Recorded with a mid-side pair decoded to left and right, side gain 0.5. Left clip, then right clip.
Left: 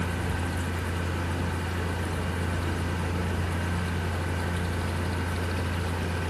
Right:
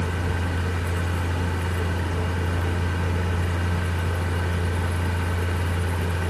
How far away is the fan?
About 2.5 m.